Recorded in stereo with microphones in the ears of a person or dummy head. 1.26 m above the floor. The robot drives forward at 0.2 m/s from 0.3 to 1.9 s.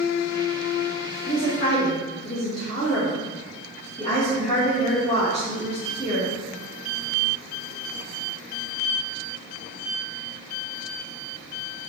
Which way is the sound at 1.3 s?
30° left (ahead or behind).